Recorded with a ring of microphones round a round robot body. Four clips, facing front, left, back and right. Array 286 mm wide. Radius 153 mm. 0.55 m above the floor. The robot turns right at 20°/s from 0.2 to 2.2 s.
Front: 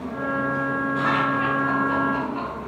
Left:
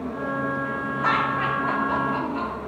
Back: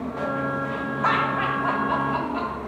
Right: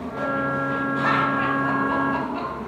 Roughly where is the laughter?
Behind.